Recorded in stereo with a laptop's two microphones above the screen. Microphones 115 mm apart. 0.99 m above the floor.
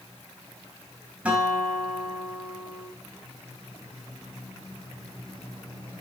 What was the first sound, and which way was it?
A guitar, 10° right (ahead or behind).